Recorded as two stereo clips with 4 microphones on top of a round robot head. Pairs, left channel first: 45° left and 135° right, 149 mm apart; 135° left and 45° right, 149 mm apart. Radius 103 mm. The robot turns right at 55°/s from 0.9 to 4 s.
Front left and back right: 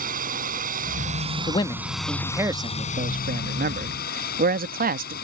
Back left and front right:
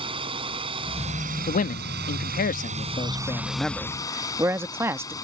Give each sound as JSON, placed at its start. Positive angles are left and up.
{"t": 0.0, "sound": "a drone", "azimuth_deg": -105}
{"t": 1.5, "sound": "a man speaking", "azimuth_deg": 100}